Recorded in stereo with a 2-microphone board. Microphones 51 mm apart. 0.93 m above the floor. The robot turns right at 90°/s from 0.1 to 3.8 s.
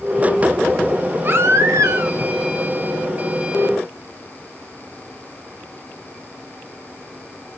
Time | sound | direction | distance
1.2 | a baby crying | 140° right | 1.0 m